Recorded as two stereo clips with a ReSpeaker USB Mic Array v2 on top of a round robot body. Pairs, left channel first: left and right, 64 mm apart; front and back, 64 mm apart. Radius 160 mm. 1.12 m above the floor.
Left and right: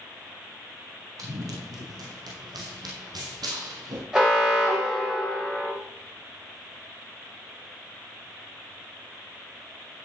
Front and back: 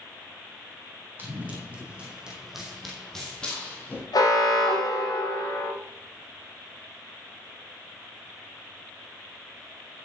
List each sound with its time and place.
1.2 s running footsteps: 120° right, 4 m; by 4.0 s 65° right, 3 m
4.1 s an alarm: 10° right, 5 m